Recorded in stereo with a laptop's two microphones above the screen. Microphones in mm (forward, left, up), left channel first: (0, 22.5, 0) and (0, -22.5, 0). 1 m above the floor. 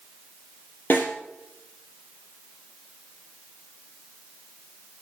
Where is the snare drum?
50° left (ahead or behind), 4.5 m.